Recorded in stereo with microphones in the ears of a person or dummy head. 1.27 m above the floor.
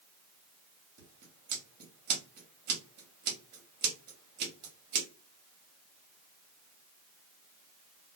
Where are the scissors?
55° right (ahead or behind), 1.0 m.